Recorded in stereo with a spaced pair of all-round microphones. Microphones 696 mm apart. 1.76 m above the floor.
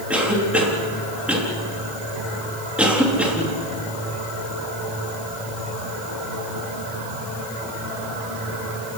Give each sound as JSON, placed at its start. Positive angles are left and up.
{"t": 0.1, "sound": "a cough", "side_deg": 0, "distance_m": 4.0}